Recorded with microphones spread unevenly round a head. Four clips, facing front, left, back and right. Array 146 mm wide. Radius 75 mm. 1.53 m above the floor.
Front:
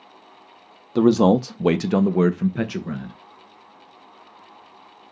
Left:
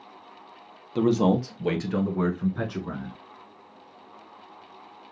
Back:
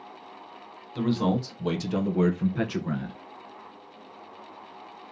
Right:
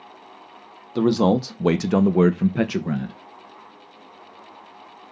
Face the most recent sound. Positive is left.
turn(degrees=-95)